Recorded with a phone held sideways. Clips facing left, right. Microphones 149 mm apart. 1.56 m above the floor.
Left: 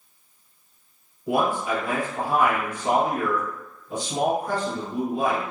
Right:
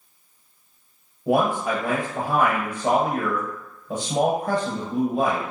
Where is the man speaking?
65° right (ahead or behind), 1.2 m.